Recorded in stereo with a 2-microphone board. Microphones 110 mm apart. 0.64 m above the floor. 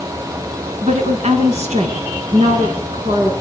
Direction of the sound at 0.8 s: 80° right.